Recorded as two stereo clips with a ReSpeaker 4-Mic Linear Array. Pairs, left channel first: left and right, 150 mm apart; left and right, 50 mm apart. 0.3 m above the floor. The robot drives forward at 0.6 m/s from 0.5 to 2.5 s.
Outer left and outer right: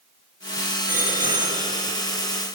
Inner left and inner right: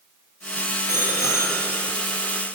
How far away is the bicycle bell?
About 7 m.